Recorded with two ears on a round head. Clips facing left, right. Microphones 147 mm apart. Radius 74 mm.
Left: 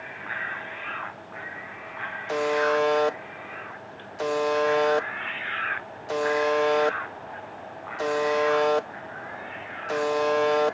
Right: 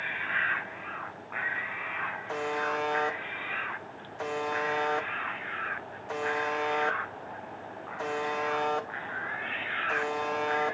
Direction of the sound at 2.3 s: 40° left (ahead or behind).